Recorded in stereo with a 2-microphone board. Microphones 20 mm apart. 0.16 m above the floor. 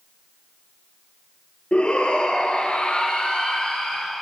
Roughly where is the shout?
Left.